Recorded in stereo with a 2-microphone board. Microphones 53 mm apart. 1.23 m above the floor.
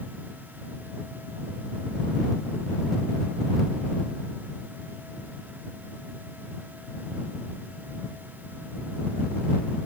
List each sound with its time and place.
Only background noise.